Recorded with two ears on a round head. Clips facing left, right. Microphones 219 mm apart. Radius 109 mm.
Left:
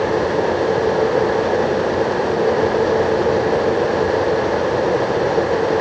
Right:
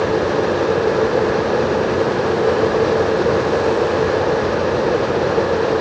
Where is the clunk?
I don't hear a clunk.